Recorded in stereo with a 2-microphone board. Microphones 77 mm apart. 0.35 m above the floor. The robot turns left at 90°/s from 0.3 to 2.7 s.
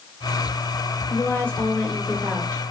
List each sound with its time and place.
1.1 s a woman speaking: 30° left (ahead or behind), 1.0 m; by 2.6 s 25° right (ahead or behind), 1.0 m